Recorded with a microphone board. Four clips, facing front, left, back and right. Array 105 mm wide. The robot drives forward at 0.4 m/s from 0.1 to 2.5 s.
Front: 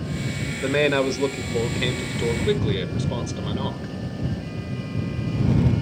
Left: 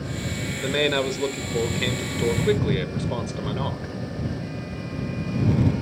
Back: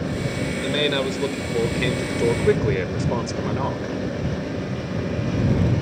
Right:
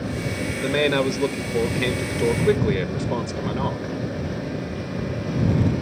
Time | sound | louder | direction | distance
0.6 | a man speaking | right 2 dB, front 4 dB | 20° right | 0.9 m